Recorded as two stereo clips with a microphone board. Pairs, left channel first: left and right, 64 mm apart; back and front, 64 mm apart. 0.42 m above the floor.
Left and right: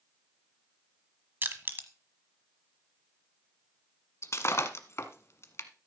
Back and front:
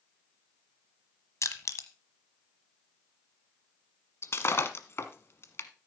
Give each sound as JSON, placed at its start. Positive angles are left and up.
{"t": 1.4, "sound": "crushing", "azimuth_deg": -145, "distance_m": 1.2}
{"t": 4.2, "sound": "breaking glass", "azimuth_deg": 135, "distance_m": 1.1}